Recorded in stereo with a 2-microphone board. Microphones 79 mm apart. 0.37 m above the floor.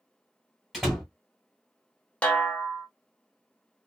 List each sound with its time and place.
0.7 s a door slam: centre (ahead or behind), 1.1 m
2.2 s a snare drum: 15° left (ahead or behind), 0.6 m